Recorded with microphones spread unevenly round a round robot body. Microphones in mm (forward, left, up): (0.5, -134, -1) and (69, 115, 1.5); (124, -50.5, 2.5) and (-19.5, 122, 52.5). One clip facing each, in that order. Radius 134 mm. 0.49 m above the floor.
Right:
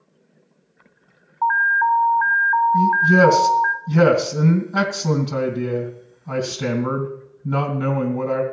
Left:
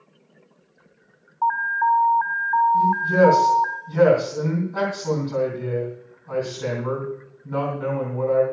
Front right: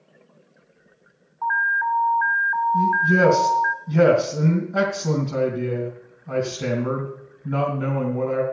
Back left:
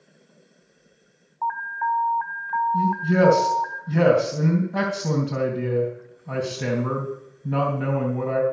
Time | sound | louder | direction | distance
1.4 | an alarm | right 1 dB, front right 1 dB | 105° right | 0.8 m
2.7 | a man speaking | right 3 dB, even | 145° right | 3 m